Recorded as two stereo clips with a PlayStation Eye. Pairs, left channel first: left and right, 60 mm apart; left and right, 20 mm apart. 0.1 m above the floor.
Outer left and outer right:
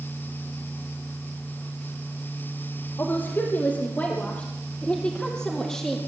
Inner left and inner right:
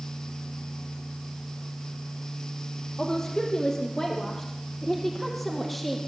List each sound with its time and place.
3.0 s a woman speaking: 40° left (ahead or behind), 3.5 m; by 6.0 s 5° left (ahead or behind), 4 m